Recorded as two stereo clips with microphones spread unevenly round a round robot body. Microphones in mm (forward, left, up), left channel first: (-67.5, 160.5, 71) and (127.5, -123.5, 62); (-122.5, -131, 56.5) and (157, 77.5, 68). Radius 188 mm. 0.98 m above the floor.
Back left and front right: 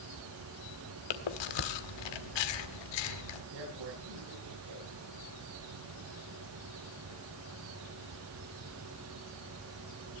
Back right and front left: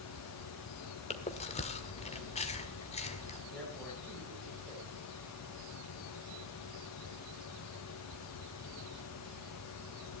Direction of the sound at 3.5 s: 55° right.